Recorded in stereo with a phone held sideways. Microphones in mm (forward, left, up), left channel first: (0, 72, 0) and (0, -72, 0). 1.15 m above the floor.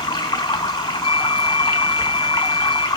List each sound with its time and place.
0.0 s running water: 30° left (ahead or behind), 1.3 m
1.0 s a flute: 20° right (ahead or behind), 2.5 m